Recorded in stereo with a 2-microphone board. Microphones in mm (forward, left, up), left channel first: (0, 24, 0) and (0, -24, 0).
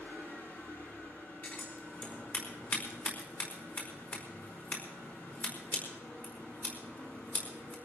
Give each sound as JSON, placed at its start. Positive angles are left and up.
{"t": 0.0, "sound": "an engine running", "side_deg": 50, "distance_m": 6.0}
{"t": 1.4, "sound": "scissors", "side_deg": 45, "distance_m": 5.0}